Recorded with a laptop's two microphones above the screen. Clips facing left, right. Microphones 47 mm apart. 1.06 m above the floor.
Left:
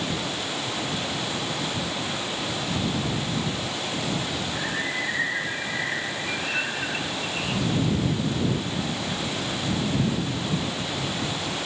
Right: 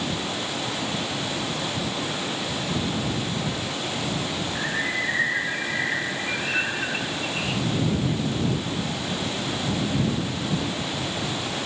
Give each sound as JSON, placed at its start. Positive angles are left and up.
{"t": 4.5, "sound": "a bird", "side_deg": -15}